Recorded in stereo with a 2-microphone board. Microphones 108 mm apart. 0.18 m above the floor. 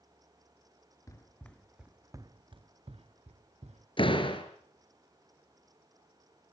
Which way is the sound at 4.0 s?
50° left (ahead or behind).